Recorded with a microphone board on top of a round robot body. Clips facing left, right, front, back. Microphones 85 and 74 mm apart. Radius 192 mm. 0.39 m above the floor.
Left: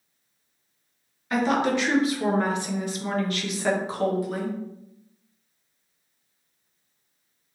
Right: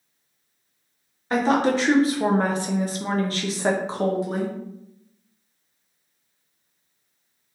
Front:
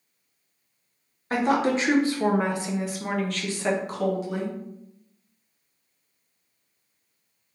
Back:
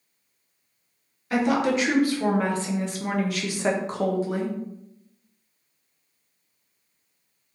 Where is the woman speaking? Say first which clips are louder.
Right 3 dB, even; 40° right, 1.5 m; by 4.6 s 155° right, 1.3 m.